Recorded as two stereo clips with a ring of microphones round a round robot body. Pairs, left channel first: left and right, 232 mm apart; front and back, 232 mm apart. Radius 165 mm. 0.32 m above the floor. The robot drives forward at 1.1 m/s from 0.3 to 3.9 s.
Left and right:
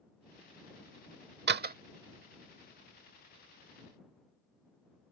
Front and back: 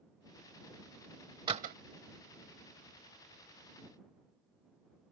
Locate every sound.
1.5 s a door slam: 110° right; by 1.8 s 135° right